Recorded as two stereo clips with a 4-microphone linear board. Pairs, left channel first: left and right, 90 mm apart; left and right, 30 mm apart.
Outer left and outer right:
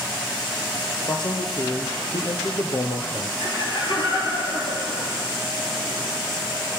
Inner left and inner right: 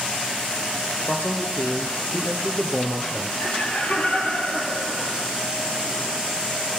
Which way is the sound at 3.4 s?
55° left (ahead or behind).